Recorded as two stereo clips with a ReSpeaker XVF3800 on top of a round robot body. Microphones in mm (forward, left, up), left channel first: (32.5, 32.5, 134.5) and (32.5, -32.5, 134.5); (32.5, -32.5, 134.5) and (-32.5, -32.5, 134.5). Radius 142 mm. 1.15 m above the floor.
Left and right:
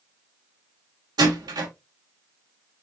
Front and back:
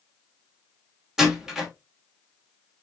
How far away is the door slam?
About 1.8 m.